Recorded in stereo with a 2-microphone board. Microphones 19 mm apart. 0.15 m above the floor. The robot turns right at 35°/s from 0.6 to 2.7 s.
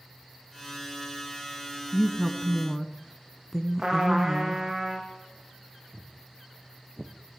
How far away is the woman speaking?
About 1.1 m.